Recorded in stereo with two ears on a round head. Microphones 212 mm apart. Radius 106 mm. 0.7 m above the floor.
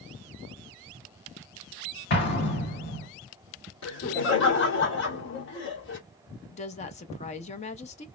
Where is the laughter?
50° left (ahead or behind), 2 m.